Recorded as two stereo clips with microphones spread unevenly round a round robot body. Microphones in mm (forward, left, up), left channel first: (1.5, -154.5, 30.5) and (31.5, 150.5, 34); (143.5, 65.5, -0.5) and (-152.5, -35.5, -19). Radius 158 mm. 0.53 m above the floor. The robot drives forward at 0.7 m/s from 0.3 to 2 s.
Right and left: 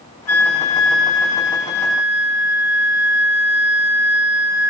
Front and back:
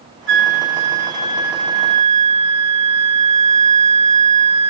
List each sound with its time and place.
0.3 s a flute: 120° right, 1.7 m; by 4.7 s 150° right, 2.5 m